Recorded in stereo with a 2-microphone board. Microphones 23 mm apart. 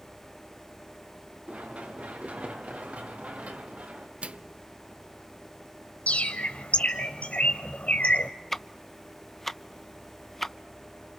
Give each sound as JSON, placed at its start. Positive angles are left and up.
{"t": 1.5, "sound": "running footsteps", "side_deg": -75, "distance_m": 6.5}
{"t": 4.2, "sound": "a microwave", "side_deg": -60, "distance_m": 0.5}
{"t": 6.1, "sound": "a bird", "side_deg": 75, "distance_m": 1.9}
{"t": 8.5, "sound": "ticking", "side_deg": 10, "distance_m": 0.6}